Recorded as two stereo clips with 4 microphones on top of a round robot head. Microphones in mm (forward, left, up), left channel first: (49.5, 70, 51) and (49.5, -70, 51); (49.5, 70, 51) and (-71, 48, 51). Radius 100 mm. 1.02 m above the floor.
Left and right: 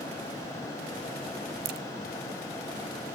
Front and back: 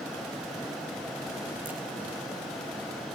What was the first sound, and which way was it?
A crack, 90° right.